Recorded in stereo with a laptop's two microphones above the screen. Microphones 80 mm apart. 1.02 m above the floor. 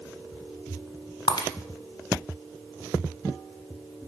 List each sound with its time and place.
1.3 s breaking glass: 55° left (ahead or behind), 1.5 m